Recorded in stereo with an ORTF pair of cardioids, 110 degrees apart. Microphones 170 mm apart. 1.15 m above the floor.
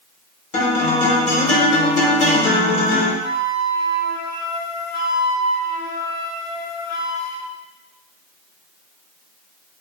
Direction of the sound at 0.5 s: 45° left.